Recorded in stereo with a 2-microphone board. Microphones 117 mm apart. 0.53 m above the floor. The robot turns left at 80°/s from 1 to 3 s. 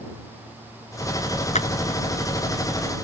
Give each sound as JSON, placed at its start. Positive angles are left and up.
{"t": 1.6, "sound": "a clap", "side_deg": 80}